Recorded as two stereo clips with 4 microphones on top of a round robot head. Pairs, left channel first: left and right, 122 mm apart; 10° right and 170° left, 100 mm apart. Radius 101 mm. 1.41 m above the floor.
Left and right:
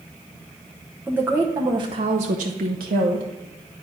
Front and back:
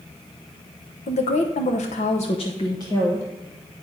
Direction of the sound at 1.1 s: 10° right.